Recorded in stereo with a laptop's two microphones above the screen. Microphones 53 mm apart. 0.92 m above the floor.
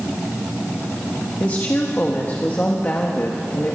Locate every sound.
1.4 s a woman speaking: 35° left (ahead or behind), 1.6 m